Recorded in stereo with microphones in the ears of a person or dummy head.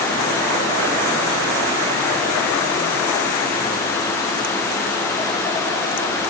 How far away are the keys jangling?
No keys jangling in this recording.